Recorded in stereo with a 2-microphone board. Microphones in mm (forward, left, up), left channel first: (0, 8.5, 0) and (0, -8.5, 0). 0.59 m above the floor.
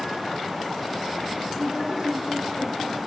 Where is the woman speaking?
40° right (ahead or behind), 8.5 m.